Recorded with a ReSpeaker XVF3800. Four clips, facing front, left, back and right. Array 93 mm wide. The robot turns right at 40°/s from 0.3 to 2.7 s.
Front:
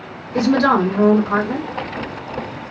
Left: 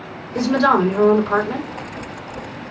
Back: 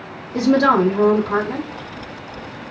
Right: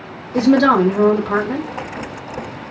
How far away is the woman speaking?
About 1.4 m.